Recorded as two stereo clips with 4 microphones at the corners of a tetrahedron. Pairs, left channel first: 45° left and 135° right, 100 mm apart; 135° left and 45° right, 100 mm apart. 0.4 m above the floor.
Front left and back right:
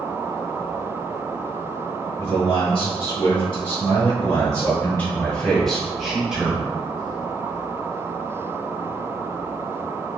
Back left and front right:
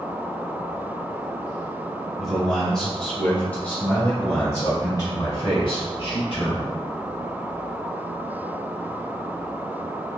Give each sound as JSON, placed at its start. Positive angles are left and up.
{"t": 2.2, "sound": "a man speaking", "azimuth_deg": 45, "distance_m": 1.9}